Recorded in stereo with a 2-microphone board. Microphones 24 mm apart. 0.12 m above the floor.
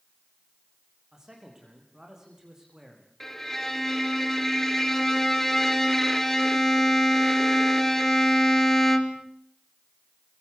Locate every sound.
1.1 s a man speaking: 25° right (ahead or behind), 9 m
3.2 s a violin: 10° left (ahead or behind), 2.0 m